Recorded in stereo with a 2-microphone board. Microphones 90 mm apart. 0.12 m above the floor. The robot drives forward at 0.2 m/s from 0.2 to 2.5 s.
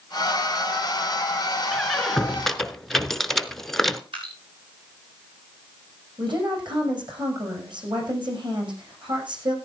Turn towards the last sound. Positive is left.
turn(degrees=-65)  # may be behind; listen again after turning